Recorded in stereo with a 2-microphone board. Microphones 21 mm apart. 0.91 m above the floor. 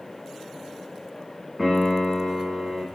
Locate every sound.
1.6 s a piano: 20° right (ahead or behind), 8.5 m